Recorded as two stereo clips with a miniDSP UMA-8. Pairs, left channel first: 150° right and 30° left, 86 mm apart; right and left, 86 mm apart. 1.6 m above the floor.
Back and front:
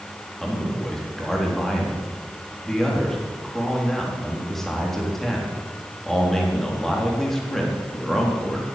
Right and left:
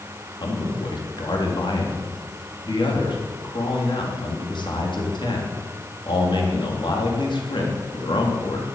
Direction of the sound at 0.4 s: 65° right.